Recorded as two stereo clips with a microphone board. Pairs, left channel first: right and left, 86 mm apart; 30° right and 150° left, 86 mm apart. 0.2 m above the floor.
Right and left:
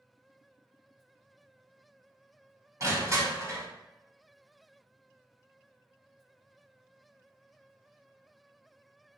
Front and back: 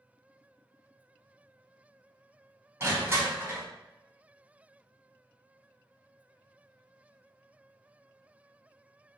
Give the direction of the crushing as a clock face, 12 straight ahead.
8 o'clock.